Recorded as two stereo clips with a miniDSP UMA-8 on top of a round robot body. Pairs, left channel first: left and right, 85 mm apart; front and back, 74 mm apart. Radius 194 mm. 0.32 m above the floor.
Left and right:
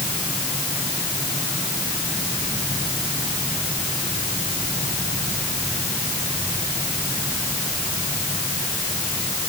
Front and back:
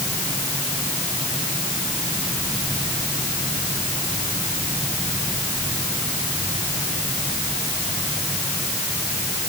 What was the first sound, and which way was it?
Only background noise.